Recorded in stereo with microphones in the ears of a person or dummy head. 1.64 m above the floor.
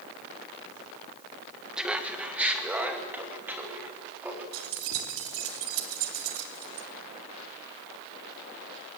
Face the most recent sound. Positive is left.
turn(degrees=-80)